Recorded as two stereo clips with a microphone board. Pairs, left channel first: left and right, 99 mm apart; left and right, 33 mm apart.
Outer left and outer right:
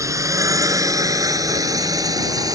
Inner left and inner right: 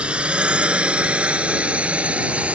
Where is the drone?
30° right (ahead or behind); by 2.5 s 40° right (ahead or behind).